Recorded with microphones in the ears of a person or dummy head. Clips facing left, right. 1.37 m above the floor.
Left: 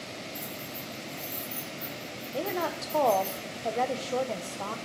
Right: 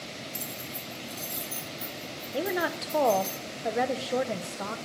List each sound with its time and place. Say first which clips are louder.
0.3 s keys jangling: left 1 dB; 55° right (ahead or behind), 4 m; by 3.3 s 30° right (ahead or behind), 6.5 m
2.3 s a woman speaking: right 2 dB; 15° right (ahead or behind), 0.7 m